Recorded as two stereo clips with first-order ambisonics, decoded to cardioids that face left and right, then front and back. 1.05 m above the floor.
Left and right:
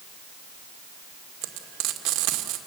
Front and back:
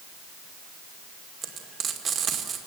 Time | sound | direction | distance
1.4 | frying | 120° right | 2 m